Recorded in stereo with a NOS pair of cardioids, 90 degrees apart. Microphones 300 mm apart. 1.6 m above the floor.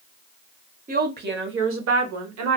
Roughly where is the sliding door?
I don't hear a sliding door.